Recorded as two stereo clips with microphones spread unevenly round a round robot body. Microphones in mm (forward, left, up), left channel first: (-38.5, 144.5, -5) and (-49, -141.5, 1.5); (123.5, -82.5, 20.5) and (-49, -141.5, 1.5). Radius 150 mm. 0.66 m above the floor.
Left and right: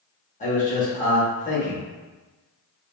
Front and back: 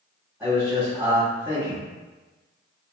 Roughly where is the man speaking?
Behind left.